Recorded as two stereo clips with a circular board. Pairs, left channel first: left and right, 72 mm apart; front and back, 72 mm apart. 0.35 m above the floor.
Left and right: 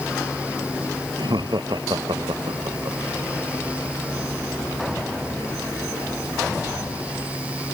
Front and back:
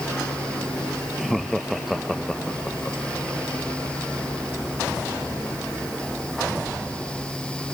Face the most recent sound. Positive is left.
turn(degrees=-90)